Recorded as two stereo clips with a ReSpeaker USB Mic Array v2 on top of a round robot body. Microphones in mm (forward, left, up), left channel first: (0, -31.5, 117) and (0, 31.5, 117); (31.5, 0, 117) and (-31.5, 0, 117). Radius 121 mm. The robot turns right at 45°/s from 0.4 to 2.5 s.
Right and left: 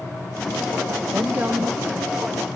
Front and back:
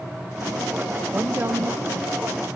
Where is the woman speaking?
130° left, 1.0 m; by 2.6 s 170° right, 1.0 m.